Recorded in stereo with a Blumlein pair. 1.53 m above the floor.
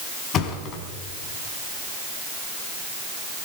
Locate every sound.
0.3 s a thud: 30° left, 4 m